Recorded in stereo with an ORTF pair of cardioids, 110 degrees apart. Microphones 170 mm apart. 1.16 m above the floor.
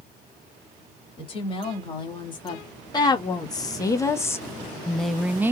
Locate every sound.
1.2 s a woman speaking: 30° left, 2.5 m; by 5.5 s 15° right, 0.6 m